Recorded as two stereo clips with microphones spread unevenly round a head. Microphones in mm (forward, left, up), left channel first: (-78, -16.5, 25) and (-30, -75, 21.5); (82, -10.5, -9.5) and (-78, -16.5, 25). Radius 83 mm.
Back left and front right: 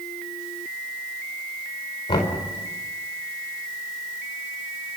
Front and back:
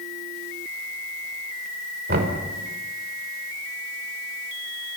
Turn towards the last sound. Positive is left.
turn(degrees=150)